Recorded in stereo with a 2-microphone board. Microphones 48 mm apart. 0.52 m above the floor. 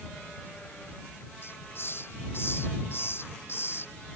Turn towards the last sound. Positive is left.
turn(degrees=55)  # may be behind; listen again after turning